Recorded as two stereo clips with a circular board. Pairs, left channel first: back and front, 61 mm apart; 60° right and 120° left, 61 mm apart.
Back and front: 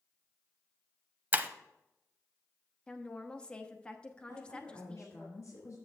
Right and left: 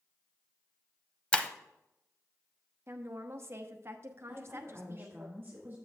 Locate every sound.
1.3 s breaking glass: 10° right, 0.6 m
2.9 s a woman speaking: 115° left, 0.9 m
4.3 s a woman speaking: 170° left, 2.5 m